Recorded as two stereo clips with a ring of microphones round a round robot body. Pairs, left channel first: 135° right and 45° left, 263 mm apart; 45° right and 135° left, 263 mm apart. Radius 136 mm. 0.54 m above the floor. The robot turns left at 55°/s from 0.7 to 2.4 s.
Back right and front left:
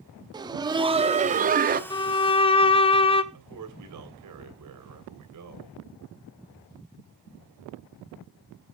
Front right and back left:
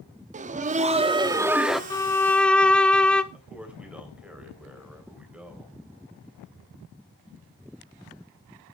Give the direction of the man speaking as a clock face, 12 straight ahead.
10 o'clock.